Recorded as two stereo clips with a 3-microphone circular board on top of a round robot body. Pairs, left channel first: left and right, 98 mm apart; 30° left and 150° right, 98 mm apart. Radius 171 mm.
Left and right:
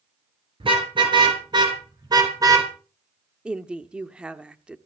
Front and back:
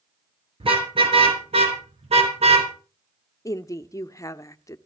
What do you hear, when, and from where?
0.6 s a car horn: 120° right, 6 m; by 2.7 s 145° right, 4 m
3.5 s a woman speaking: 15° right, 1.3 m